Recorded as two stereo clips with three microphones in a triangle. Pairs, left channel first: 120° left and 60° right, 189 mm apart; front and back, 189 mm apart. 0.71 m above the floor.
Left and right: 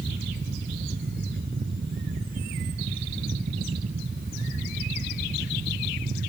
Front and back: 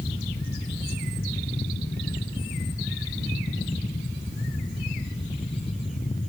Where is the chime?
No chime in this recording.